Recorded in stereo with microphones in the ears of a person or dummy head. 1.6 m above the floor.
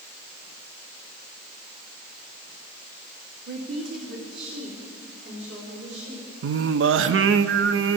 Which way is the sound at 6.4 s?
80° right.